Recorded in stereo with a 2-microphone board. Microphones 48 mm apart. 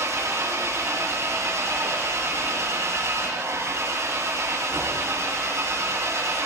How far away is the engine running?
About 8.5 m.